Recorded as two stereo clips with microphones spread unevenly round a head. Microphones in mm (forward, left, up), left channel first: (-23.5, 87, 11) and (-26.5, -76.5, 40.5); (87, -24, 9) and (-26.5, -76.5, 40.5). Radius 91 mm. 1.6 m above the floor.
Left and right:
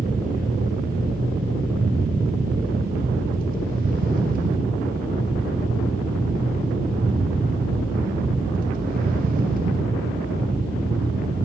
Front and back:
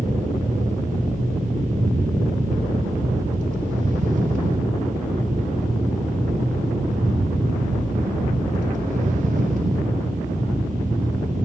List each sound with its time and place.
0.0 s a fan: 130° right, 0.8 m